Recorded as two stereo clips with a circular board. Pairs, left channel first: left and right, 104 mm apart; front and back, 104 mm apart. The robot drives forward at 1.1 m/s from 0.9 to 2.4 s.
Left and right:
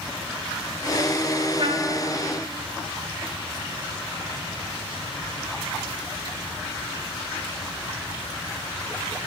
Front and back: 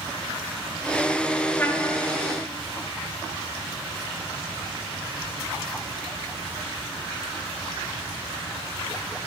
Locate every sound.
1.6 s a trumpet: 65° right, 1.4 m; by 1.9 s 85° right, 1.3 m